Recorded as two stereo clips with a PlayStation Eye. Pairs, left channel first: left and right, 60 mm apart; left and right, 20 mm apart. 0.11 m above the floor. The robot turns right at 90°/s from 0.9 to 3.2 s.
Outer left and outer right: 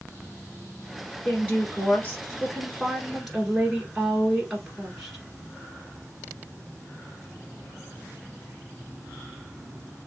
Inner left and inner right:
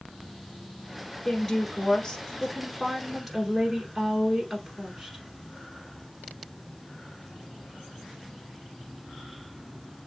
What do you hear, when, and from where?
1.2 s a woman speaking: 15° left, 1.7 m; by 5.2 s 170° right, 1.7 m